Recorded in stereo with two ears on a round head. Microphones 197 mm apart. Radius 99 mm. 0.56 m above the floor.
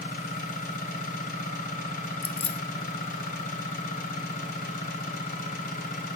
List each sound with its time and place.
0.0 s an engine running: 40° left (ahead or behind), 3 m
2.2 s keys jangling: 25° left (ahead or behind), 0.6 m